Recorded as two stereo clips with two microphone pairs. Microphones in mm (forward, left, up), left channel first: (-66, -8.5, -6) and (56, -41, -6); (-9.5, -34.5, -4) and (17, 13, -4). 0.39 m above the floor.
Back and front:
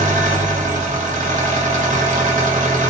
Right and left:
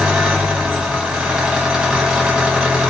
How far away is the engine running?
About 0.8 m.